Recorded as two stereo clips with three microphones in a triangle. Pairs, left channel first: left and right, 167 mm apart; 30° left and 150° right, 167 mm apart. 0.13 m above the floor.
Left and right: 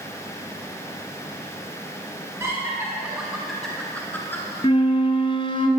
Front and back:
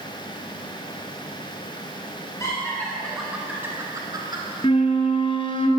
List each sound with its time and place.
2.4 s laughter: 30° right, 1.9 m; by 4.5 s 160° left, 2.5 m
4.6 s a flute: 60° left, 0.8 m